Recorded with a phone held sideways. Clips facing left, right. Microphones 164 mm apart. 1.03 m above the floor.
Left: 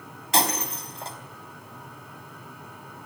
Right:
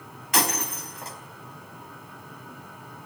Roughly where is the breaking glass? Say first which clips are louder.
Left 1 dB; left.